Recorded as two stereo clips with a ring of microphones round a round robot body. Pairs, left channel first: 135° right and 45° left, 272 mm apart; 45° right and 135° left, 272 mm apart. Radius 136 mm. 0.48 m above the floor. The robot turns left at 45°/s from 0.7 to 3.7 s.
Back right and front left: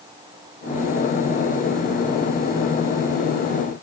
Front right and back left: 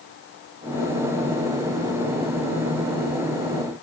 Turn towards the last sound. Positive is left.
No sound to turn to.